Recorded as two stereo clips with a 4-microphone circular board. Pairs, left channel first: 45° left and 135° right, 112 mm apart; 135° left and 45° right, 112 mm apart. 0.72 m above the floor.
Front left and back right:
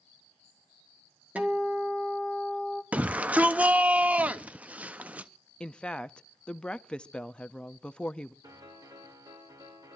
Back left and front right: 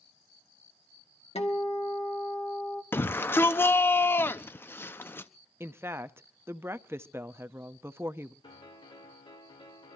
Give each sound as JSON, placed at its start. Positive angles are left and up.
{"t": 1.4, "sound": "a guitar", "azimuth_deg": 150, "distance_m": 2.0}
{"t": 2.9, "sound": "a shout", "azimuth_deg": 170, "distance_m": 0.5}
{"t": 5.6, "sound": "a woman speaking", "azimuth_deg": -20, "distance_m": 0.6}
{"t": 8.4, "sound": "a piano", "azimuth_deg": 175, "distance_m": 3.0}